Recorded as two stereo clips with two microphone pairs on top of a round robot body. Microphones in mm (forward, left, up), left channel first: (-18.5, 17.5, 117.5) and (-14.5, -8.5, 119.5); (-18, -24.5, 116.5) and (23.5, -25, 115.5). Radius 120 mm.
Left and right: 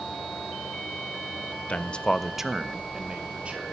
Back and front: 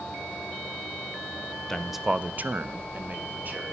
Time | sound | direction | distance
1.7 | a man speaking | 100° left | 0.7 m